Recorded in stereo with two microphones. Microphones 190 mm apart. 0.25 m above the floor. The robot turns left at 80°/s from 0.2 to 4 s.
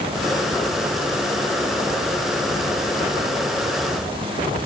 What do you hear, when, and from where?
Only background noise.